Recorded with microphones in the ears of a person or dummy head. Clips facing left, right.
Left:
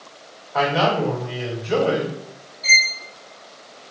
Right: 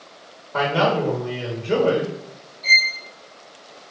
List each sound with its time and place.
0.5 s a man speaking: 70° right (ahead or behind), 1.9 m
2.6 s a violin: 15° left (ahead or behind), 1.2 m